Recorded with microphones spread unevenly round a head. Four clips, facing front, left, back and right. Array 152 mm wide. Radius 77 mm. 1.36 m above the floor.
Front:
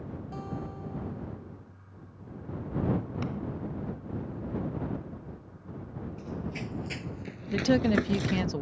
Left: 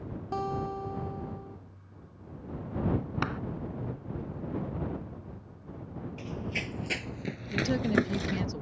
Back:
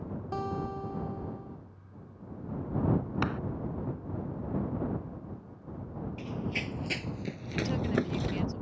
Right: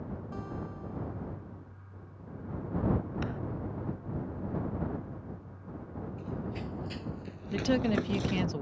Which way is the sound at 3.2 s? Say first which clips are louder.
Left 4 dB, back 3 dB; 155° left.